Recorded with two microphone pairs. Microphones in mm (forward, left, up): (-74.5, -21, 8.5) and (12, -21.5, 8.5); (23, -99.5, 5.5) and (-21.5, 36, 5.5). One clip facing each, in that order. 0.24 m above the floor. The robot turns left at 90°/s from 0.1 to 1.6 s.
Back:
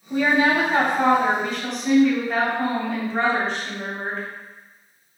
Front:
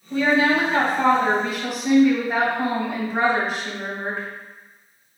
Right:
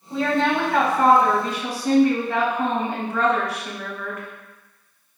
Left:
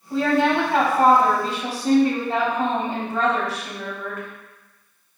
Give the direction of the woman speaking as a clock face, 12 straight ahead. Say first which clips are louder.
Even, left 2 dB; 5 o'clock.